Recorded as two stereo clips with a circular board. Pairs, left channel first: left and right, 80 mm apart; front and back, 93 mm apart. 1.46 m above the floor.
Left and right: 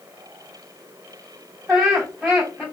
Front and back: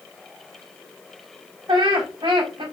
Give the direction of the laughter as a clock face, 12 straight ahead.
6 o'clock.